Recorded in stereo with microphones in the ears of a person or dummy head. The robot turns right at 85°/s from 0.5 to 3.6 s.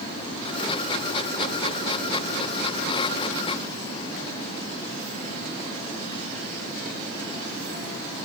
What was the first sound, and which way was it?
Only background noise.